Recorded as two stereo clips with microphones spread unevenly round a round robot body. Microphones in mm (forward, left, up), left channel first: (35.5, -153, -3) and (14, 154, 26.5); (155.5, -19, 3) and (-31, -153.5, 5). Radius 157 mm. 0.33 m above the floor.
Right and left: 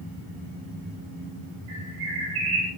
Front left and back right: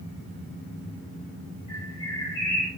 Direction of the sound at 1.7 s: 110° left.